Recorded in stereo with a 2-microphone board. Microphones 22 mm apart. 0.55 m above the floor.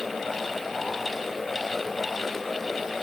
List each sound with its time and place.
Only background noise.